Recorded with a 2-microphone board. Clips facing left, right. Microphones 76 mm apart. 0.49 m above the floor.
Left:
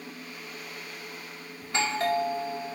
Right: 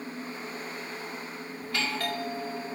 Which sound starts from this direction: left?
A doorbell, at 1.6 s.